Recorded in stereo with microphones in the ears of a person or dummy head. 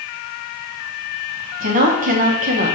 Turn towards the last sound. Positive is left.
turn(degrees=-45)  # may be behind; listen again after turning